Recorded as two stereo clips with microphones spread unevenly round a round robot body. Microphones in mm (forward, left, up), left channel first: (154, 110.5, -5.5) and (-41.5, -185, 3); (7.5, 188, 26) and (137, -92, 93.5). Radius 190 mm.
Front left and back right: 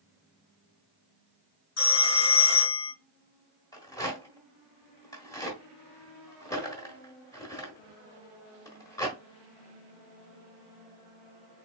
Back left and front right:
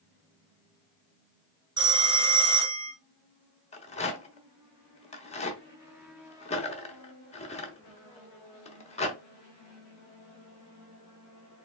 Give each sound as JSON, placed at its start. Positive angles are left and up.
{"t": 1.8, "sound": "a phone ringing", "azimuth_deg": 15, "distance_m": 1.7}
{"t": 3.7, "sound": "a rattle", "azimuth_deg": 130, "distance_m": 1.2}